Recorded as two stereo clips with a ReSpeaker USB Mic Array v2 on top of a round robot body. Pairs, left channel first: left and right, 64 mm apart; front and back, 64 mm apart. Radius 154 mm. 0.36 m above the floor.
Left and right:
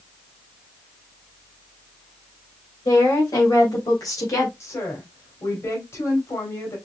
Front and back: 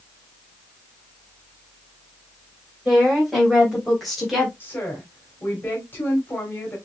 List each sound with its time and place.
2.9 s a woman speaking: 90° left, 4 m
4.6 s a woman speaking: 55° left, 3 m